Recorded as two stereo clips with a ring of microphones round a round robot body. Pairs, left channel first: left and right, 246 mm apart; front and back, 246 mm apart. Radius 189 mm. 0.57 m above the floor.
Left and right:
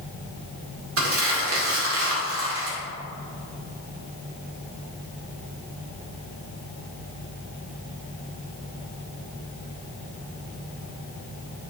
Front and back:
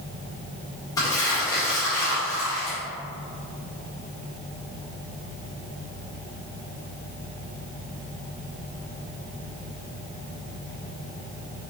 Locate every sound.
1.0 s crumpling: 75° right, 2.0 m